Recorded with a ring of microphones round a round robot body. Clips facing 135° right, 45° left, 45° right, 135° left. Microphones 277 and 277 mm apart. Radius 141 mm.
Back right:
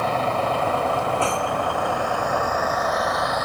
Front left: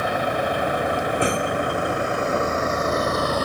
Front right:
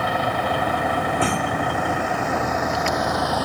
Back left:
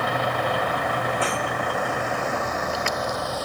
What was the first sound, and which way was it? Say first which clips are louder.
A vehicle: even, front right 1 dB; 30° right.